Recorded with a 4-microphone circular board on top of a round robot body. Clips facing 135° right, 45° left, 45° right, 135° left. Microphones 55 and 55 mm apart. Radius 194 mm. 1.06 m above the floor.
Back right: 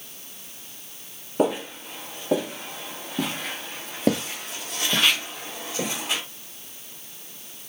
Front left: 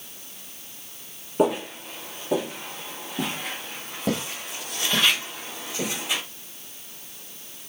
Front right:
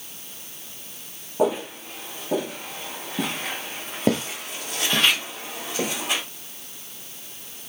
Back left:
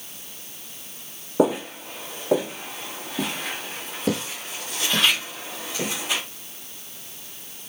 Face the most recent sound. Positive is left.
turn(degrees=-80)